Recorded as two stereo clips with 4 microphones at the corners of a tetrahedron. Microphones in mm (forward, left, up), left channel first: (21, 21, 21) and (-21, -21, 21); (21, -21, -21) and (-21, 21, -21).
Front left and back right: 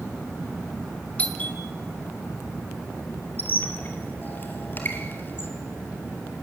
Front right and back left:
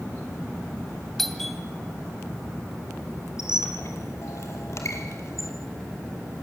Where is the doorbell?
35° left, 1.9 m.